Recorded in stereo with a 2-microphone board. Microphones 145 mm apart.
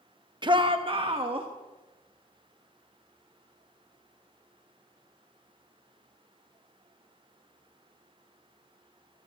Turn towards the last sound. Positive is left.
turn(degrees=-35)  # may be behind; listen again after turning